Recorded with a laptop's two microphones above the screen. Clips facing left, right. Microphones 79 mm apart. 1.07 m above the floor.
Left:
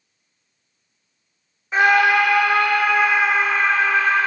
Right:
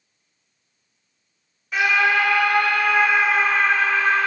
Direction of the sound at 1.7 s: 30° left (ahead or behind).